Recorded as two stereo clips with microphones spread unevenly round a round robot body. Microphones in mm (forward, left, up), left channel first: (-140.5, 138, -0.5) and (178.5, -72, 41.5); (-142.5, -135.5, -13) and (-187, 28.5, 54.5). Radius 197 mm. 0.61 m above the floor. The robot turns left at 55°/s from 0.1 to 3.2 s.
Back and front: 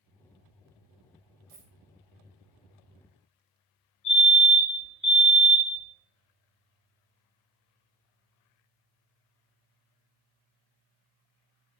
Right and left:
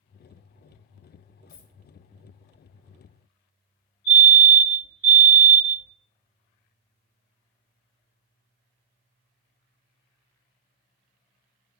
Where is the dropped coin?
80° right, 0.7 m; by 1.7 s 95° right, 0.7 m.